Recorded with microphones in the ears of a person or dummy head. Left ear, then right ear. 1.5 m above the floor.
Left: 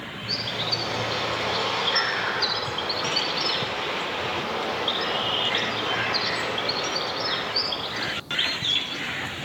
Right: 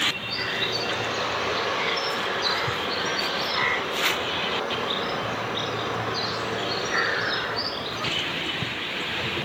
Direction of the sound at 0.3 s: 50° left (ahead or behind).